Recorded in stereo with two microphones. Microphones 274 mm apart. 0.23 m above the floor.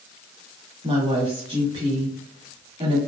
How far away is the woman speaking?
About 1.3 m.